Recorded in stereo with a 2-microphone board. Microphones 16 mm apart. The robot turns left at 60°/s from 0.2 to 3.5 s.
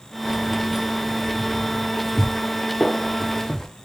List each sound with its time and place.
0.2 s keys jangling: 30° right (ahead or behind), 0.6 m; by 3.7 s 35° left (ahead or behind), 0.6 m
2.8 s a gunshot: 55° left (ahead or behind), 1.3 m; by 3.1 s 60° left (ahead or behind), 1.3 m